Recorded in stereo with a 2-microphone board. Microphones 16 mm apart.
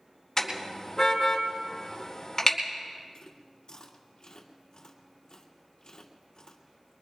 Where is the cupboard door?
No cupboard door in this recording.